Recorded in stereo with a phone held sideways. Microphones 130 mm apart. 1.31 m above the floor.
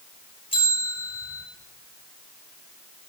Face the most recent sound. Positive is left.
turn(degrees=45)  # may be behind; listen again after turning